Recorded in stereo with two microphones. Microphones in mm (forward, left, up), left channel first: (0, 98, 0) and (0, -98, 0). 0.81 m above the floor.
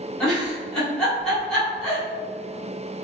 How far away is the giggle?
About 1.8 m.